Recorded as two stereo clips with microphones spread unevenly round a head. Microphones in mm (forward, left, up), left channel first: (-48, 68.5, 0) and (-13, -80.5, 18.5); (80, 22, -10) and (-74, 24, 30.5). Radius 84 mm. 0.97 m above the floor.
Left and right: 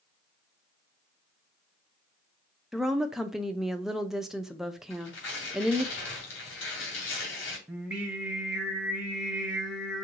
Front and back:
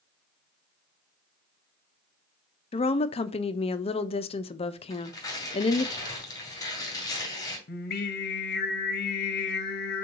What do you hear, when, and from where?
2.7 s a woman speaking: 15° left, 0.5 m
4.9 s tearing paper: 70° left, 2.5 m
7.7 s singing: 10° left, 0.8 m